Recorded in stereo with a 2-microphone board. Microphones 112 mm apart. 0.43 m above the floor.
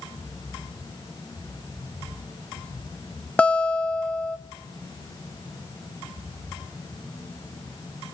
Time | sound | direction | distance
3.4 | a guitar | 10° left (ahead or behind) | 0.7 m